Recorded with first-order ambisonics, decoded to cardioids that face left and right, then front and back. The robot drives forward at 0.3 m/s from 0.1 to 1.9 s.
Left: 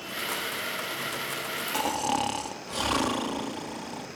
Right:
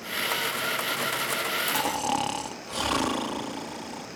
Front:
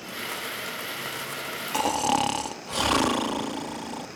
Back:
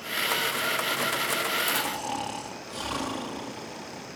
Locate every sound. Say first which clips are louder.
1.7 s snoring: right 1 dB, front 6 dB; 5° right, 0.9 m